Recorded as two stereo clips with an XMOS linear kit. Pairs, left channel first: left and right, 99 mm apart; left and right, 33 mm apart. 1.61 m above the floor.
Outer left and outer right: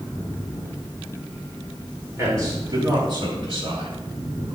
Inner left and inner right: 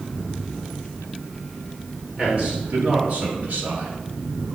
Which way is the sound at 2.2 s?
30° right (ahead or behind).